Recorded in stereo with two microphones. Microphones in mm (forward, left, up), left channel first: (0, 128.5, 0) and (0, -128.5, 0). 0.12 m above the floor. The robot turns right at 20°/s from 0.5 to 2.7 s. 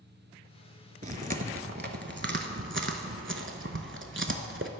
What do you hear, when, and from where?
1.0 s chewing: 30° right (ahead or behind), 0.5 m; by 4.7 s 50° right (ahead or behind), 0.5 m